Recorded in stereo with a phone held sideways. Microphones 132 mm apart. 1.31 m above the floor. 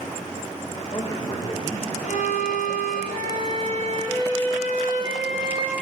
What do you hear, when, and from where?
0.7 s a man speaking: 40° left (ahead or behind), 1.8 m
2.0 s a violin: 75° left (ahead or behind), 4 m